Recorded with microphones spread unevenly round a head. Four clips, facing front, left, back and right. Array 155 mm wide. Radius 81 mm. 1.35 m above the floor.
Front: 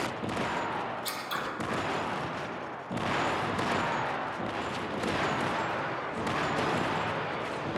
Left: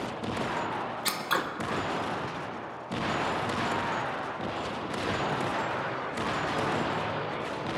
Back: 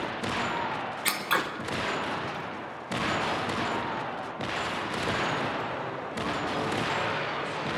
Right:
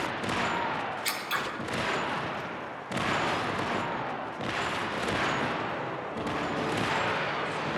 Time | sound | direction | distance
1.1 | scissors | 140° left | 1.1 m